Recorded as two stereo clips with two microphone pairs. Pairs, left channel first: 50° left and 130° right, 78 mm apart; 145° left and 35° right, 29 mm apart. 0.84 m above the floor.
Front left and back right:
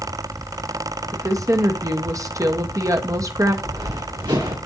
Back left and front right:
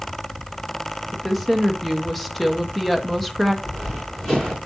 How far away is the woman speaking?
About 1.0 m.